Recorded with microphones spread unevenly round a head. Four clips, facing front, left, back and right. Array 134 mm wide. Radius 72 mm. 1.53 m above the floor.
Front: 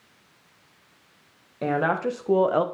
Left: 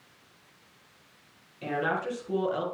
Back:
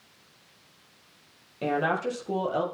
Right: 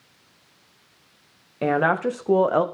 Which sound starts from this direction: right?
A woman speaking, at 1.6 s.